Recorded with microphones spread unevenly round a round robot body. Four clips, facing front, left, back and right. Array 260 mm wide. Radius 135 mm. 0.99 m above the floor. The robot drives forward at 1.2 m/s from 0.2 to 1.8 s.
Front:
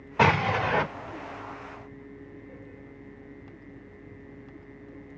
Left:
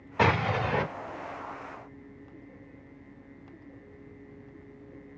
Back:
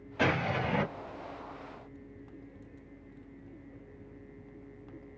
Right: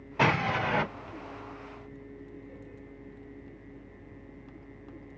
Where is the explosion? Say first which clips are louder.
Left 1 dB, front 7 dB; 20° right, 3.5 m; by 0.8 s 25° right, 2.5 m.